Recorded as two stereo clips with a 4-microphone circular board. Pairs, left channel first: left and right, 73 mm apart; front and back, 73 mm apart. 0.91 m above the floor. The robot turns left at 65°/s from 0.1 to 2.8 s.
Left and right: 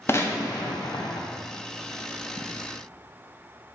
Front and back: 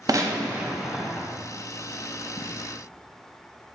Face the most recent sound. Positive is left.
turn(degrees=-30)